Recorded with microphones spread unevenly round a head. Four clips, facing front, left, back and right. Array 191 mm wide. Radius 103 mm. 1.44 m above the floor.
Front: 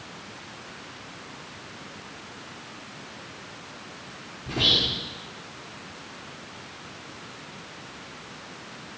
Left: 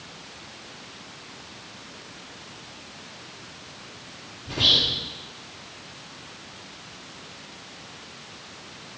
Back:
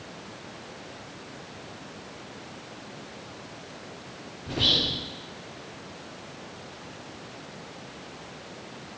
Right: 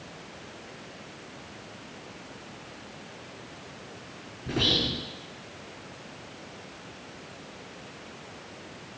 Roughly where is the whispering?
Right.